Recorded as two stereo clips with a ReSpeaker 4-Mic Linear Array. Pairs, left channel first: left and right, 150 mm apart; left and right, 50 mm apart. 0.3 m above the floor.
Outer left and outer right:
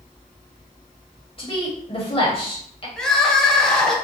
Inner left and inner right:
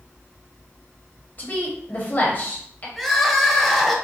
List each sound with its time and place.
1.4 s a woman speaking: 35° left (ahead or behind), 1.1 m
3.0 s crying: 5° left (ahead or behind), 0.6 m